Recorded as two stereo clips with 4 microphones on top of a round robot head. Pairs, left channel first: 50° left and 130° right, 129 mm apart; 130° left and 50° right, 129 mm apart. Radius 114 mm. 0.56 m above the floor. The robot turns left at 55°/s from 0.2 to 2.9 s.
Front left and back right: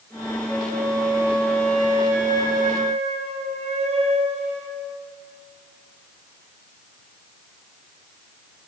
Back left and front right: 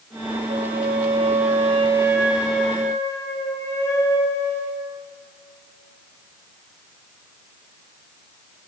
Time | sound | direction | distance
0.5 | a flute | 30° right | 3.5 m